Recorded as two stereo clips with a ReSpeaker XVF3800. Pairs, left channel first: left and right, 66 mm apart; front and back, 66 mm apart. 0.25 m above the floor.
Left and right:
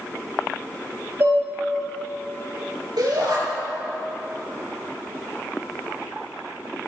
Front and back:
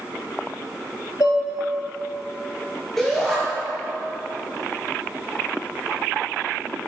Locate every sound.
1.2 s dishes clattering: 35° right, 4 m
3.0 s a shout: 85° right, 4 m